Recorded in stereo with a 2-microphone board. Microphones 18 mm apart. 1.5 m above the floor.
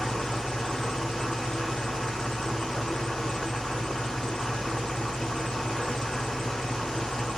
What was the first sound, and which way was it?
An engine running, 60° left (ahead or behind).